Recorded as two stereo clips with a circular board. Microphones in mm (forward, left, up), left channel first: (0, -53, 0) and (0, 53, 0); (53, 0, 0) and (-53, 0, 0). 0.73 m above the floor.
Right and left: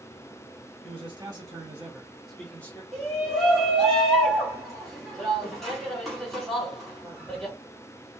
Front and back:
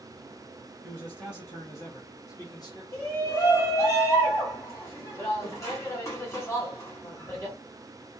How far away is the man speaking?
About 1.2 m.